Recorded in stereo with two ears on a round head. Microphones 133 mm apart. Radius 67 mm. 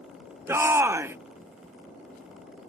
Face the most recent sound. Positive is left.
turn(degrees=-15)  # may be behind; listen again after turning